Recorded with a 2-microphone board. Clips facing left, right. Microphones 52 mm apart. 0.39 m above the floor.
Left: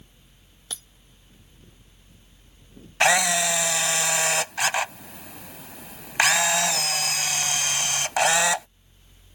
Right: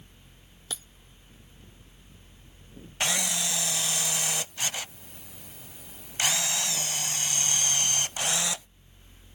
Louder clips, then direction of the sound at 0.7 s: Even; 5° right (ahead or behind).